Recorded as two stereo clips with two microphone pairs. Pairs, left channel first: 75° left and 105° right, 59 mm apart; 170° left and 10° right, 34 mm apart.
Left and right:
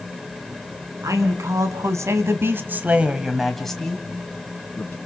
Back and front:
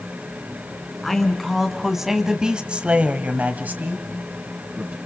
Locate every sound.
1.0 s a man speaking: 105° right, 3 m; by 5.0 s 20° left, 3 m